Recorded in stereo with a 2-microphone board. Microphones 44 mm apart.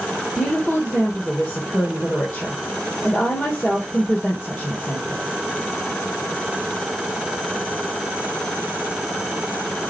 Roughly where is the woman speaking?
Left.